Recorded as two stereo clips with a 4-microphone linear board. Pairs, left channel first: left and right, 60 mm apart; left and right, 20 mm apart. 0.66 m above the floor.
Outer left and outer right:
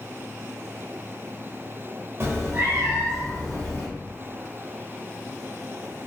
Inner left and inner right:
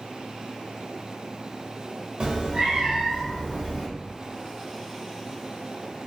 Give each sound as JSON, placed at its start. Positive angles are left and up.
{"t": 2.2, "sound": "a cat meowing", "side_deg": -45, "distance_m": 0.5}